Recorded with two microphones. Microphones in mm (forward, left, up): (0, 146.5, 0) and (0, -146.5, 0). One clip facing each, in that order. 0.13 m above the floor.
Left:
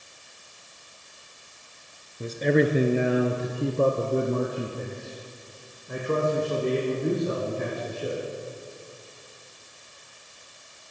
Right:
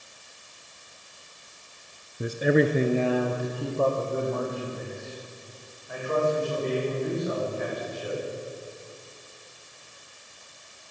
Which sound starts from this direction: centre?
A man speaking, at 2.2 s.